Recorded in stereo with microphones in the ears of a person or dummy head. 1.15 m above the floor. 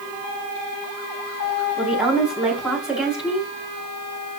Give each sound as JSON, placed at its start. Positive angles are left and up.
{"t": 1.8, "sound": "a woman speaking", "side_deg": -10, "distance_m": 7.5}